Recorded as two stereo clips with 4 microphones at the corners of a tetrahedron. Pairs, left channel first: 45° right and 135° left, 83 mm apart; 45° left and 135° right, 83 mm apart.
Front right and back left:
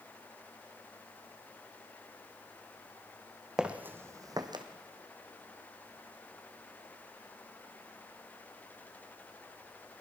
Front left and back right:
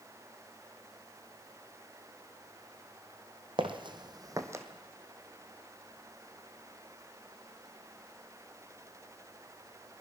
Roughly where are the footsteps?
Behind right.